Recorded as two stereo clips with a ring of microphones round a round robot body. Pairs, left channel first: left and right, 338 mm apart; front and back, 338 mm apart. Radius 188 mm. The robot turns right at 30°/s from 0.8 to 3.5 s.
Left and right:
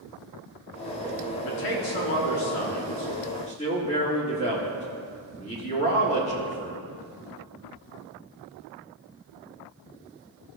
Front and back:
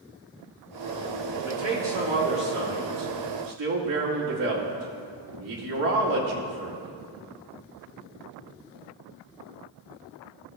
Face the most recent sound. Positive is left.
turn(degrees=160)